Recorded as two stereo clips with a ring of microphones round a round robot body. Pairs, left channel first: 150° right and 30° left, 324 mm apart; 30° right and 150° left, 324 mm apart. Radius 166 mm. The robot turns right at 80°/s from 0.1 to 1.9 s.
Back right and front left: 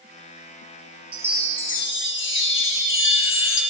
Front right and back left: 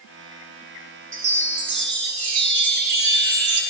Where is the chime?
100° left, 0.6 m; by 3.6 s 165° left, 0.6 m.